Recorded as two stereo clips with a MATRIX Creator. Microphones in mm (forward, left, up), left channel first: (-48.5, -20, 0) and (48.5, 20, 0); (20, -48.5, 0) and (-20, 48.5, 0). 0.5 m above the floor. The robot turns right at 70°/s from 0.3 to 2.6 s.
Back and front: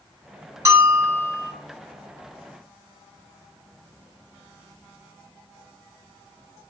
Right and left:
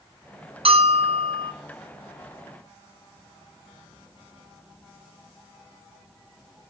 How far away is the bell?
About 2.5 m.